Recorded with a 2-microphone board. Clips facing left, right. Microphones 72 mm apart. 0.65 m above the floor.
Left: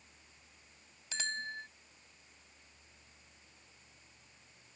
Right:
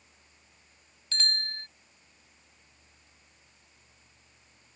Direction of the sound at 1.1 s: 10° left (ahead or behind).